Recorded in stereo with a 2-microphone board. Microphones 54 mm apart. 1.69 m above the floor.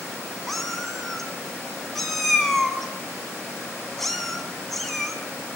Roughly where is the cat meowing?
Centre.